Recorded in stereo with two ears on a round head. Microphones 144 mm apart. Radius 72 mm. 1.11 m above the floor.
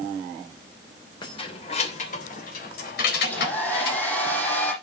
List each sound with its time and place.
1.2 s keys jangling: 30° left (ahead or behind), 3 m; by 4.0 s 80° left, 4.5 m
3.2 s a hair dryer: 10° left (ahead or behind), 7.5 m